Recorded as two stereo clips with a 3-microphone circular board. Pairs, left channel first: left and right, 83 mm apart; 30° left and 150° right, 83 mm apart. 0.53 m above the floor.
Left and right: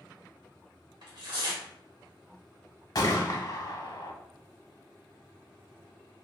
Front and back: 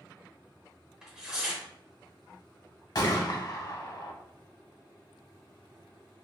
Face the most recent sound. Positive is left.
turn(degrees=55)